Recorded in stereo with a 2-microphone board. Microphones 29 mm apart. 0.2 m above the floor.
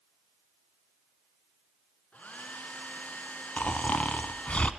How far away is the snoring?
About 0.9 m.